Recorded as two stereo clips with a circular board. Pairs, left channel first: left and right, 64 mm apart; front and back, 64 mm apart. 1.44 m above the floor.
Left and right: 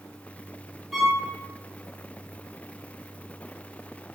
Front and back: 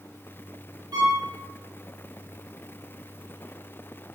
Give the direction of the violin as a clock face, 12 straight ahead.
6 o'clock.